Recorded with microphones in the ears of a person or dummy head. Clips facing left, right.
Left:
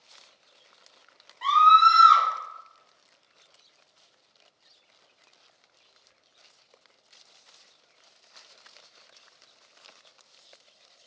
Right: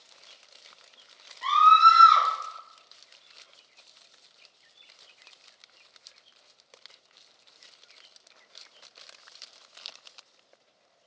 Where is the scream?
50° left (ahead or behind), 1.4 m.